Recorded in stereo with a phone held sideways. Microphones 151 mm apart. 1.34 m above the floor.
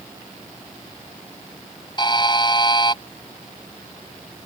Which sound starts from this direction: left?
A buzzer, at 2.0 s.